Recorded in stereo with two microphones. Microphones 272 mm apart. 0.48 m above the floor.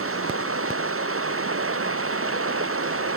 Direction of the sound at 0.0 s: 55° right (ahead or behind).